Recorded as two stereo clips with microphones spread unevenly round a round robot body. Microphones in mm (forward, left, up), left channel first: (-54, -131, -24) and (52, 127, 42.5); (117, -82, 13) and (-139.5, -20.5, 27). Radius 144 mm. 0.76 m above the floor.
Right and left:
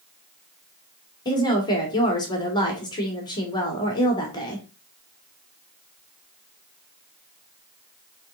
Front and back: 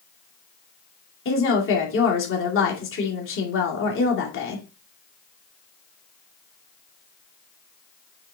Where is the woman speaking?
45° right, 2.5 m.